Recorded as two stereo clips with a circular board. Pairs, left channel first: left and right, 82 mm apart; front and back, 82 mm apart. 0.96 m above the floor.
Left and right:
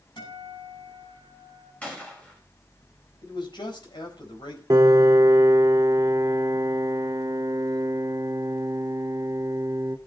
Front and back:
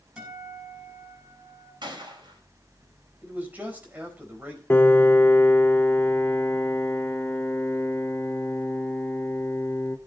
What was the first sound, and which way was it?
A guitar, 100° left.